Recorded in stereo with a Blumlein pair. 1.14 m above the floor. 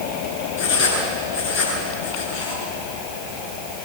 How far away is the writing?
About 9 m.